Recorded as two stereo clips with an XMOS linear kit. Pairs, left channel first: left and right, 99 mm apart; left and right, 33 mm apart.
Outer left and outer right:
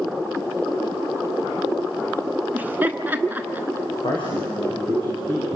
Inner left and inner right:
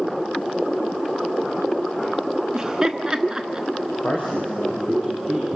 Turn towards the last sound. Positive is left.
turn(degrees=55)  # may be behind; listen again after turning